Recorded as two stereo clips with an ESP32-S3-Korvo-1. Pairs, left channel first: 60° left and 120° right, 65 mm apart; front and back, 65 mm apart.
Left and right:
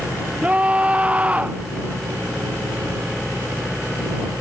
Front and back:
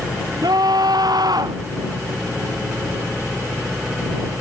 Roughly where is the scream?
Behind.